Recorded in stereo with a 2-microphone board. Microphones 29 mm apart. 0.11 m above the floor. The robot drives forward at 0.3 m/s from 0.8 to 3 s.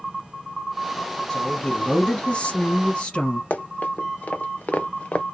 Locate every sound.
1.3 s a woman speaking: 35° left (ahead or behind), 2 m; by 3.4 s 40° left (ahead or behind), 1.9 m
3.5 s running footsteps: 80° left, 1.2 m; by 5.2 s 50° left (ahead or behind), 0.5 m